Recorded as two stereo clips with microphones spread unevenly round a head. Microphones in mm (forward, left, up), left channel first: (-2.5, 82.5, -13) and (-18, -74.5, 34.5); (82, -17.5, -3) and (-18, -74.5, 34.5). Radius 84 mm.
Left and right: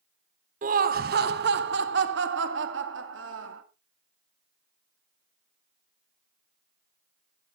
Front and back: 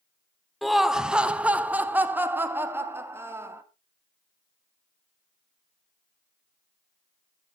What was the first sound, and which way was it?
Laughter, 50° right.